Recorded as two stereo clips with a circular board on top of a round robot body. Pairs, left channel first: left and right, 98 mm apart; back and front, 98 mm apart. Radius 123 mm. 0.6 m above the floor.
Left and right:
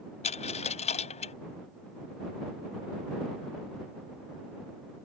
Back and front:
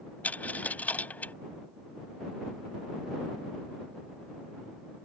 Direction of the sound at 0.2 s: 105° left.